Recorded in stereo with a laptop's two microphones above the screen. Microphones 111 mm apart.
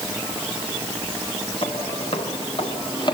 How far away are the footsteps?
About 2 m.